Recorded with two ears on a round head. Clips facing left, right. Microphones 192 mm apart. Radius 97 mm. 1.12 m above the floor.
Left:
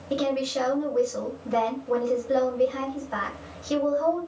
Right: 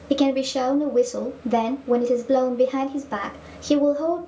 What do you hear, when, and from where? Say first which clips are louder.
0.1 s a woman speaking: right 6 dB; 55° right (ahead or behind), 1.1 m